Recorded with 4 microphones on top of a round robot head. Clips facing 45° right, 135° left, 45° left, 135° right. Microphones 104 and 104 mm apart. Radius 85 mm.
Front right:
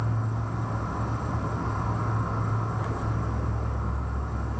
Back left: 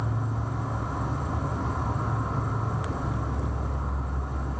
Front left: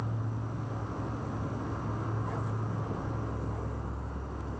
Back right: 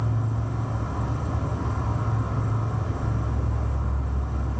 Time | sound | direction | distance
0.0 | an insect | 140° right | 1.0 m